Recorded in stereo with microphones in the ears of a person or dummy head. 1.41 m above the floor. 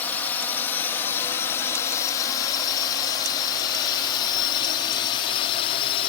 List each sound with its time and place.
0.0 s a drone: 10° left (ahead or behind); by 6.1 s 30° left (ahead or behind)